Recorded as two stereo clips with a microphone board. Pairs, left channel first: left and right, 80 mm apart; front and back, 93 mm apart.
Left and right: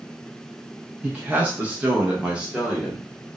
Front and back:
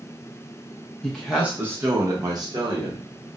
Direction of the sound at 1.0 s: 70° right.